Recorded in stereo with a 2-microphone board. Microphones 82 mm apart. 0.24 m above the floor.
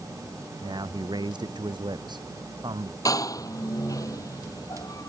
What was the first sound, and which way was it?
A man speaking, 65° right (ahead or behind).